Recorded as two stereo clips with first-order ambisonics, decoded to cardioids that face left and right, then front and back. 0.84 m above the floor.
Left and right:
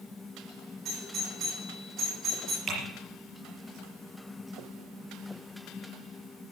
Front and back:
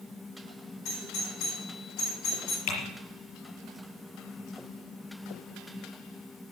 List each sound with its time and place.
0.8 s a doorbell: 30° right, 9.5 m
2.7 s typing on a keyboard: 20° right, 6 m